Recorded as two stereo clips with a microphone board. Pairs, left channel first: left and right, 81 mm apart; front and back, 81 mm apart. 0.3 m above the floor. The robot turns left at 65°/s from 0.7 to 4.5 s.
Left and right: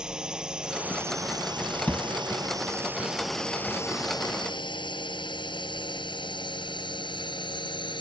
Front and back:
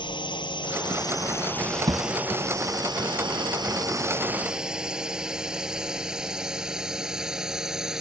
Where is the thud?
160° left; by 2.1 s 150° left.